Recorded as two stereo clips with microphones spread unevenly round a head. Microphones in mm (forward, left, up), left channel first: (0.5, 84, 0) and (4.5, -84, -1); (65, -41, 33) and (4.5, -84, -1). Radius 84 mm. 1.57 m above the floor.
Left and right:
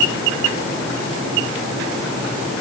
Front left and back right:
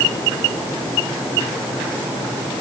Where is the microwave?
I don't hear a microwave.